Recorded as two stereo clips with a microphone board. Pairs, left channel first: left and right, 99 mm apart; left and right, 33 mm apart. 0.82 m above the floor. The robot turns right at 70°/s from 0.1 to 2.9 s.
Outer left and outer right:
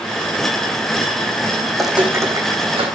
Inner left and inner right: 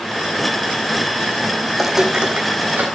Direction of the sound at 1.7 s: 10° left (ahead or behind).